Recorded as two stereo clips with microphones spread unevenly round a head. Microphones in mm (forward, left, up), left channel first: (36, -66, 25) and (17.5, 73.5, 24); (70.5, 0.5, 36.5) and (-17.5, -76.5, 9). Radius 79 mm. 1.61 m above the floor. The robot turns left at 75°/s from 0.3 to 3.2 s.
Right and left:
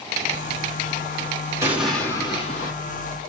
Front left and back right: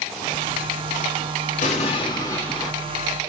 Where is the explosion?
30° left, 2.5 m; by 2.7 s 55° right, 2.5 m.